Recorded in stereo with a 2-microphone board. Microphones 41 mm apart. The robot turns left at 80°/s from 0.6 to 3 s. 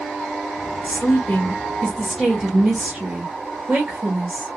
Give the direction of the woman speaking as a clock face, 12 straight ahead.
8 o'clock.